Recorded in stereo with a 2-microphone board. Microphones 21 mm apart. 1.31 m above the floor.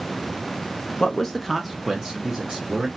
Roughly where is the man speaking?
Left.